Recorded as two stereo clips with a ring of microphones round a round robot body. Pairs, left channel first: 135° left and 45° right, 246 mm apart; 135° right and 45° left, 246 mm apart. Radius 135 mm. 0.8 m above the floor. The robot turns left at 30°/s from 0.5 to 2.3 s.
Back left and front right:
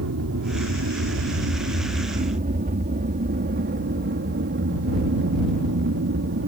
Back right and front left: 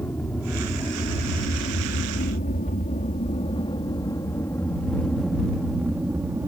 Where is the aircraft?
55° right; by 6.5 s 30° right.